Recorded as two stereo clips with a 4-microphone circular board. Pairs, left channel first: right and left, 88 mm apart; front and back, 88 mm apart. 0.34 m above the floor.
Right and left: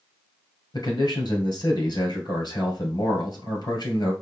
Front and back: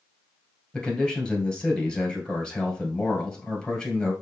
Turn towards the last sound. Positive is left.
turn(degrees=-75)